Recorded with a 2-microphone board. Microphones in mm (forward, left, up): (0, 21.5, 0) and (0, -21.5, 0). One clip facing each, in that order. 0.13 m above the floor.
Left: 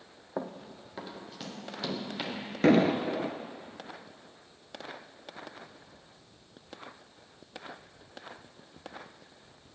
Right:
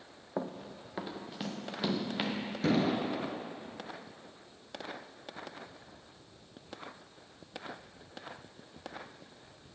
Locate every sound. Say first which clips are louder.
0.4 s running footsteps: even; 5° left (ahead or behind), 0.6 m; by 2.4 s 25° right (ahead or behind), 2.5 m
2.6 s an explosion: left 6 dB; 60° left (ahead or behind), 0.5 m